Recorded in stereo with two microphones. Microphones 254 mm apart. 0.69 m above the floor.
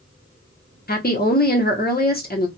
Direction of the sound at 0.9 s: 35° left (ahead or behind).